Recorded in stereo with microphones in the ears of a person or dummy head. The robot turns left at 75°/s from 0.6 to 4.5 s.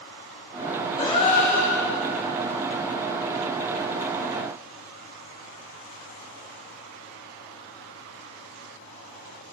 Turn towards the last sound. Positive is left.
turn(degrees=-105)